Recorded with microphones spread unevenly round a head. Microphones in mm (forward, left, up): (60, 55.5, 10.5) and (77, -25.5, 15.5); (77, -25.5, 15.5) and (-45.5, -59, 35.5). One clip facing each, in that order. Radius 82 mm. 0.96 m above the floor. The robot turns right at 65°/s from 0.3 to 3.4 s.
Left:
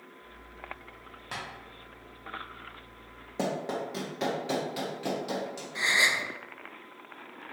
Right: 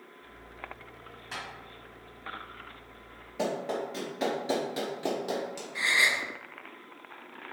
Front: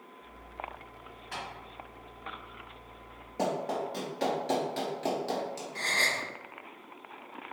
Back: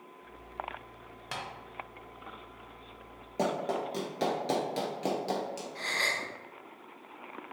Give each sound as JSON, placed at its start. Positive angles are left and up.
{"t": 1.3, "sound": "tapping", "azimuth_deg": 165, "distance_m": 0.7}
{"t": 3.4, "sound": "running footsteps", "azimuth_deg": 155, "distance_m": 1.1}
{"t": 5.8, "sound": "a gasp", "azimuth_deg": 35, "distance_m": 0.5}